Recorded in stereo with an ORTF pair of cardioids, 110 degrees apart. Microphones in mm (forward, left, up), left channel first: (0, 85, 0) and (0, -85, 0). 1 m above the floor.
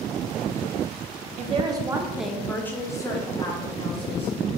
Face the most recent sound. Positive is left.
turn(degrees=35)